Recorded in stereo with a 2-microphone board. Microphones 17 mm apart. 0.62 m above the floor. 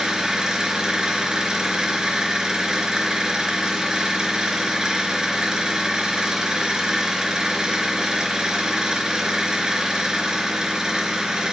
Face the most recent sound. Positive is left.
turn(degrees=-50)  # may be behind; listen again after turning